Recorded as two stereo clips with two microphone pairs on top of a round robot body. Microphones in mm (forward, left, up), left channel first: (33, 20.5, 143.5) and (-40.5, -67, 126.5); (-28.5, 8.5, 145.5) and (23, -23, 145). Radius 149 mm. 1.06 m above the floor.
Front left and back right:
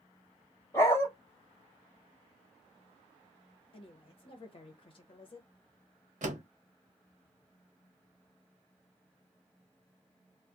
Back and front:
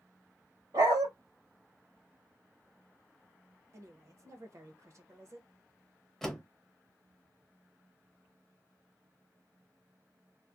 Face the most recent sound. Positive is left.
turn(degrees=-130)